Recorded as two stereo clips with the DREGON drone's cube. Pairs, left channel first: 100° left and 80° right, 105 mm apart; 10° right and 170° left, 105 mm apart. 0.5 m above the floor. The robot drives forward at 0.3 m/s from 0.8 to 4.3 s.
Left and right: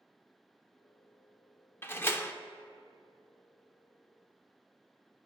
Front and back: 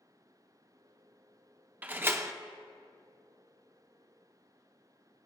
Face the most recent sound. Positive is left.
turn(degrees=165)